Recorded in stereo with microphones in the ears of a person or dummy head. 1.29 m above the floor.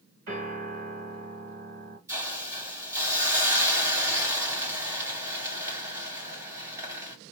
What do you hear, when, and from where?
0.3 s a piano: 60° right (ahead or behind), 3.5 m
2.1 s a hiss: 15° right (ahead or behind), 1.6 m